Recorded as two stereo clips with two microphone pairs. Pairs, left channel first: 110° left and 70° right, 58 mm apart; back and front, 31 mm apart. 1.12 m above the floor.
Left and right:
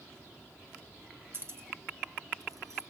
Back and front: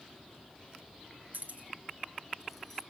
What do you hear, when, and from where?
1.3 s keys jangling: 20° right, 2 m; by 2.8 s 110° right, 0.8 m